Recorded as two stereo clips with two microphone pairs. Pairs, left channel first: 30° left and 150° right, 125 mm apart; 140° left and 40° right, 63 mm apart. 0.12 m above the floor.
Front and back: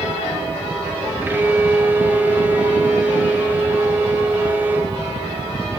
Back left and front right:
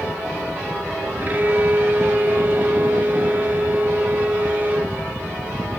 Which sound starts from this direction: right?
A violin, at 1.2 s.